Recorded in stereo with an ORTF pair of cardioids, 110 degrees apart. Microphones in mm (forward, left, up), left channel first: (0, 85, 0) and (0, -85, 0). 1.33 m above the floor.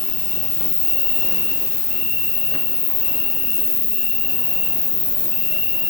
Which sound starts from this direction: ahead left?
An insect, at 0.0 s.